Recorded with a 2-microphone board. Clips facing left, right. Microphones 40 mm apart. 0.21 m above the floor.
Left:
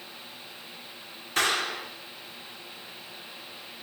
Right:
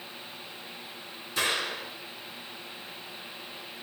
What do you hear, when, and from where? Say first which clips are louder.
1.4 s a clap: left 3 dB; 60° left (ahead or behind), 8.5 m